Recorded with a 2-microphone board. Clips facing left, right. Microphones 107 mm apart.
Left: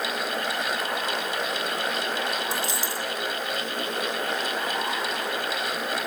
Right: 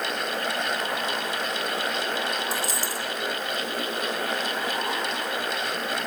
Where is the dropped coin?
40° right (ahead or behind), 4 m.